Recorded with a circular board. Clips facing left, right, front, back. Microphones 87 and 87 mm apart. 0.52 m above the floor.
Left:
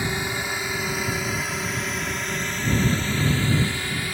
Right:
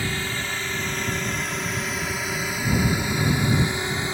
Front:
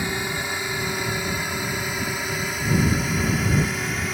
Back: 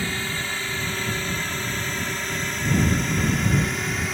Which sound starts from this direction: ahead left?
A drone, at 0.0 s.